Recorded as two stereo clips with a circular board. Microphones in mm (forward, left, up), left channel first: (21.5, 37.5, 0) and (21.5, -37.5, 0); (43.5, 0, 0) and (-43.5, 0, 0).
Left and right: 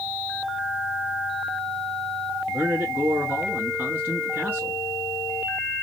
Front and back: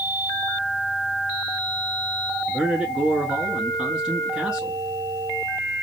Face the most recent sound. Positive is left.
turn(degrees=-110)